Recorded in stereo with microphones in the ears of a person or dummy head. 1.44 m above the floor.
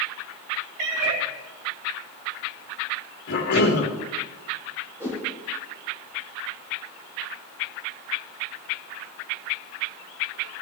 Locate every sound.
0.8 s a cat meowing: 55° right (ahead or behind), 2 m
3.3 s a cough: 70° left (ahead or behind), 2 m
5.0 s a whoosh: 15° right (ahead or behind), 3 m